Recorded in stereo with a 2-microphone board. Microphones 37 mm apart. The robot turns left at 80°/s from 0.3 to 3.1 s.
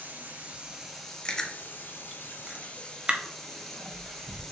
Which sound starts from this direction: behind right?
Running water, at 0.0 s.